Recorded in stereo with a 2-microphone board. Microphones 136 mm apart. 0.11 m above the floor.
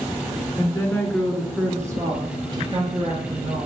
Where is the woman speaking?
25° left (ahead or behind), 1.1 m; by 3.7 s 45° right (ahead or behind), 2 m.